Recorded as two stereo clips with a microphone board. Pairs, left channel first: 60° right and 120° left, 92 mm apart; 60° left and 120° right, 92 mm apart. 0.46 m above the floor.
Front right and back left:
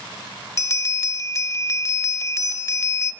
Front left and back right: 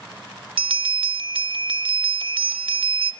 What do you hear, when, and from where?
0.6 s a bell: 115° right, 0.5 m